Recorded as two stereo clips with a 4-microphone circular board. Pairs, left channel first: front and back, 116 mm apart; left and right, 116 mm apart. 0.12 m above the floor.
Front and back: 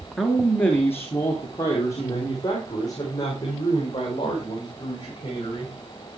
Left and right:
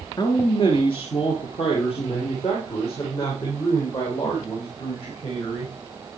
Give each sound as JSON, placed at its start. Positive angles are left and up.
{"t": 0.2, "sound": "a man speaking", "azimuth_deg": 90, "distance_m": 1.5}